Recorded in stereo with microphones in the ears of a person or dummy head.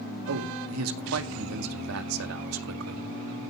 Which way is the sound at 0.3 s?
85° right.